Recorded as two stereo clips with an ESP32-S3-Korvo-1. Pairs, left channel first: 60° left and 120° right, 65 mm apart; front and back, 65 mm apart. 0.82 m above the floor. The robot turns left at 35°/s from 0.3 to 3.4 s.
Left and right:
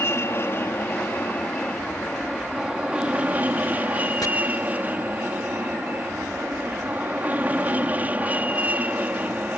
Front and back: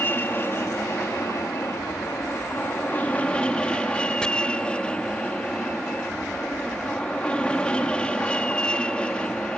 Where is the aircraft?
40° left; by 9.6 s 70° right.